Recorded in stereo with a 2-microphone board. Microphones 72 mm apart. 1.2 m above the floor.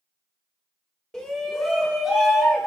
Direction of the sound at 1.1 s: 10° left (ahead or behind).